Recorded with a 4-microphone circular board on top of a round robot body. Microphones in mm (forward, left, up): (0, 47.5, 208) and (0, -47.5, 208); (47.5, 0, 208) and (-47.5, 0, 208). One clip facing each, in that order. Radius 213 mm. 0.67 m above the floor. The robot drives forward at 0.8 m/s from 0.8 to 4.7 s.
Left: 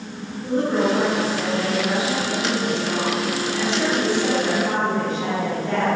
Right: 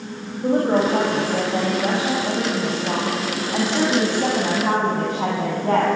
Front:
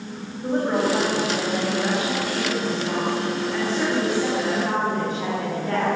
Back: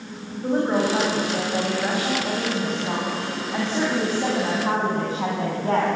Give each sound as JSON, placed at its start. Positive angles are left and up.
{"t": 0.4, "sound": "a woman speaking", "azimuth_deg": -100, "distance_m": 5.0}